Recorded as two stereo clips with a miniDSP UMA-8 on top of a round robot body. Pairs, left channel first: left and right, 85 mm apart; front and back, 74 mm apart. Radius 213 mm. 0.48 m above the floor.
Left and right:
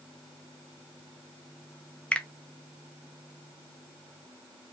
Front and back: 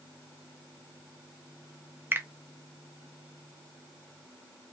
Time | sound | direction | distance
2.1 | a finger snap | 155° left | 0.6 m